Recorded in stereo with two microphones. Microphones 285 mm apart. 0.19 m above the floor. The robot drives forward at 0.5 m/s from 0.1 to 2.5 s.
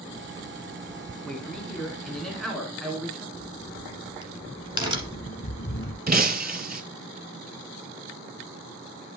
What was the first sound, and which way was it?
A man speaking, centre (ahead or behind).